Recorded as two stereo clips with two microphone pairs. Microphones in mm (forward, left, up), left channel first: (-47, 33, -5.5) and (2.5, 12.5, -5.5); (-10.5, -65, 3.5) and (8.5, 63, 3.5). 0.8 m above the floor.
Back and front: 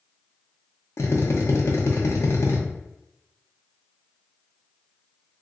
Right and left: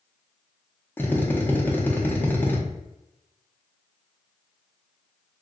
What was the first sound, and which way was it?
A drill, 175° right.